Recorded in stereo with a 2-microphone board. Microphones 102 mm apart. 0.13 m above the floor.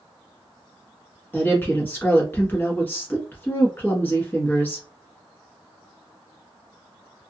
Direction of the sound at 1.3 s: 20° left (ahead or behind).